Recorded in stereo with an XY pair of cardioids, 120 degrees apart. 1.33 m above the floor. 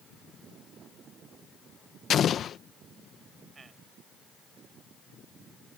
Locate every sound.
2.1 s an explosion: 50° left
3.5 s a man speaking: 30° right